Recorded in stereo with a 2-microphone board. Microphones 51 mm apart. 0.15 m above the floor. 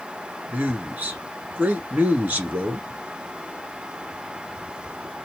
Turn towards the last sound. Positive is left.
turn(degrees=-30)  # may be behind; listen again after turning